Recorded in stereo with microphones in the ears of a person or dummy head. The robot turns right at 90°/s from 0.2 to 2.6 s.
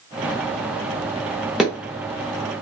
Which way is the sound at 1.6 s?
5° right (ahead or behind).